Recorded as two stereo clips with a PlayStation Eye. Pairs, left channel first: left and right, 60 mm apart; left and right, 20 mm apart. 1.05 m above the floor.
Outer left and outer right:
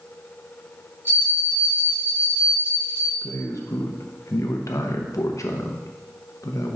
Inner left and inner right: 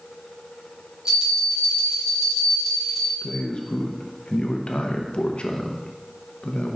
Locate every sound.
1.1 s a bell: 35° right (ahead or behind), 2.5 m
3.2 s a man speaking: 60° left (ahead or behind), 0.8 m